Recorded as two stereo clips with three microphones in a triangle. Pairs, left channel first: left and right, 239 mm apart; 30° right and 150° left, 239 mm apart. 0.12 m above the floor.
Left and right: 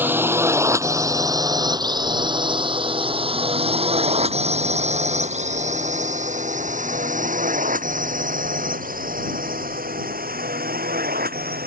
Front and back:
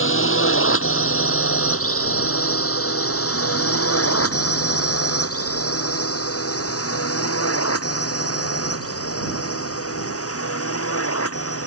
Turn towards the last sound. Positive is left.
turn(degrees=-40)